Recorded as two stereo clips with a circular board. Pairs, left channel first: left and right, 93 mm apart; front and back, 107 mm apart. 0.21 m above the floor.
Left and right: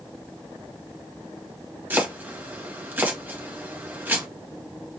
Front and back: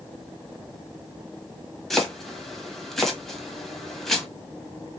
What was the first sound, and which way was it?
Chopping, 80° right.